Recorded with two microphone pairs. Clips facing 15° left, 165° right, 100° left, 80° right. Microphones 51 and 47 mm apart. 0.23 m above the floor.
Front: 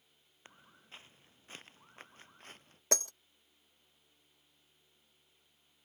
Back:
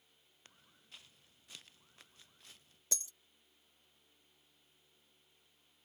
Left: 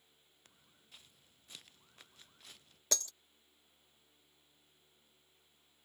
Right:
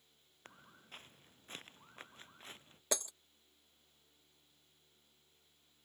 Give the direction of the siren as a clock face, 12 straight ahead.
I don't hear a siren.